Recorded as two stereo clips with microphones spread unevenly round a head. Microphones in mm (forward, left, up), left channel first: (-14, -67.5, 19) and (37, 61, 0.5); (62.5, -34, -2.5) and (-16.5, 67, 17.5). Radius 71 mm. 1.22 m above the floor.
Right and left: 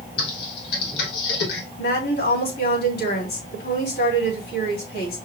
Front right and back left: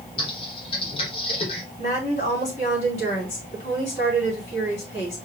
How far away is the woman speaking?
About 3.5 m.